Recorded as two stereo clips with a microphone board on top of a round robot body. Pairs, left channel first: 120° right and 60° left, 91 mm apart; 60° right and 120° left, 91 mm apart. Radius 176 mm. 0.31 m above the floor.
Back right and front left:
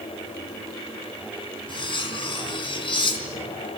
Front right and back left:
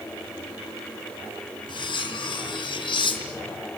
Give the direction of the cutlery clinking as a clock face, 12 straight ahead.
3 o'clock.